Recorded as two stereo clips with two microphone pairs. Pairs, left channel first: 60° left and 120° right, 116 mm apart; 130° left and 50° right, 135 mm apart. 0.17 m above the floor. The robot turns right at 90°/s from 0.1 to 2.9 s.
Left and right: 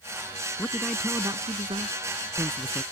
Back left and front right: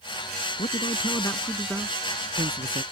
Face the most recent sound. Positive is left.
turn(degrees=-20)